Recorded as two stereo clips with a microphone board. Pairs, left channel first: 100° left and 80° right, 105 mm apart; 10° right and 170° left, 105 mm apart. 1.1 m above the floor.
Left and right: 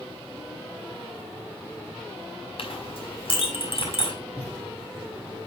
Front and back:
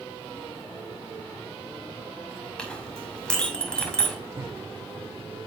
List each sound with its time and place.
2.6 s a clink: 70° left, 5.5 m
4.4 s a cupboard door: 150° left, 3 m